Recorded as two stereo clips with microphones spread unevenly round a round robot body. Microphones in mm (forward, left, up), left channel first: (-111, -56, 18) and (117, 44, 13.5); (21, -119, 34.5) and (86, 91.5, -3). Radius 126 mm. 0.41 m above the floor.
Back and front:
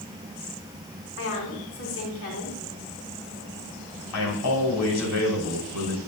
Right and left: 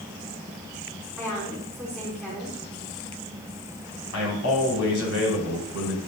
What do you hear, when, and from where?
1.2 s a woman speaking: 165° left, 3.5 m
4.1 s a man speaking: 140° right, 4 m